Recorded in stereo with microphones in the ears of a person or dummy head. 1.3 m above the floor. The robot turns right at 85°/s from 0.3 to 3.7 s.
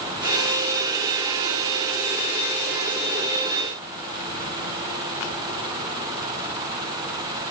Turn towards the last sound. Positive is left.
No sound to turn to.